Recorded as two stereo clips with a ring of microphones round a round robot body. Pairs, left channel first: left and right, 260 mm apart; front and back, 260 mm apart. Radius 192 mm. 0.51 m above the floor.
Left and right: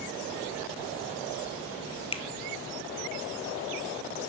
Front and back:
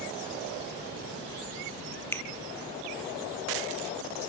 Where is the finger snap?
65° left, 1.0 m.